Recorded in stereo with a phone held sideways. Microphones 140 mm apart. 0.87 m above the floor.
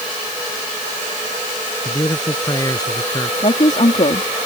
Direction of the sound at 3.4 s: 60° left (ahead or behind).